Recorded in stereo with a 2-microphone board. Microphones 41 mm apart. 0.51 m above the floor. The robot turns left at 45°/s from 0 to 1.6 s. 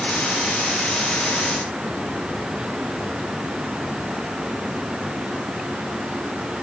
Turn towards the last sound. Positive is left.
No sound to turn to.